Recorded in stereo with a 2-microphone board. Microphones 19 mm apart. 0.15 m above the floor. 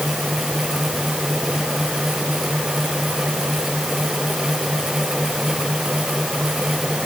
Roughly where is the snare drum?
I don't hear a snare drum.